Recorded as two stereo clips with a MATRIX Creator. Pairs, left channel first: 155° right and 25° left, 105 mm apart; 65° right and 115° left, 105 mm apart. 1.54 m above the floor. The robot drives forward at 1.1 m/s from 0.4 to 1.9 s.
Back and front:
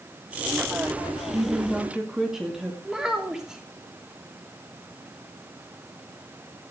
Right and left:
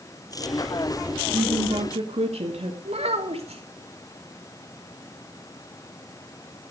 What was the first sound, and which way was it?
A woman speaking, 90° left.